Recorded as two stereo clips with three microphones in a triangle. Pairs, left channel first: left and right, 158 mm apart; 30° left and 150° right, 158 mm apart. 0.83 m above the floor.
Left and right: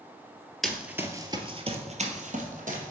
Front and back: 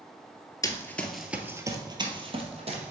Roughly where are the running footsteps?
Ahead.